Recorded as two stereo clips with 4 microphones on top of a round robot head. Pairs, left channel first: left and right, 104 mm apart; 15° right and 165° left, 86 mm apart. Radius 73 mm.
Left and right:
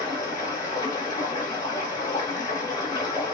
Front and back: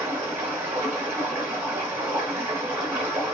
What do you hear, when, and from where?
0.0 s running water: 120° left, 1.1 m